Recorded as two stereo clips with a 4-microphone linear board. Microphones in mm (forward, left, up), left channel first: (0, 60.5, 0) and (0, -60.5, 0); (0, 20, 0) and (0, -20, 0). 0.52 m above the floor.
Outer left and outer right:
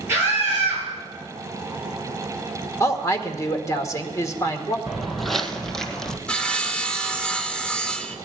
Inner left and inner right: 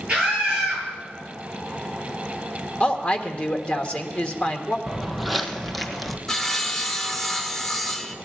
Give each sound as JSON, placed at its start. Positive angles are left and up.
{"t": 0.1, "sound": "a scream", "side_deg": -20, "distance_m": 8.5}
{"t": 2.8, "sound": "a woman speaking", "side_deg": 25, "distance_m": 1.5}
{"t": 4.9, "sound": "footsteps", "side_deg": 0, "distance_m": 0.9}
{"t": 6.3, "sound": "sawing", "side_deg": 10, "distance_m": 1.1}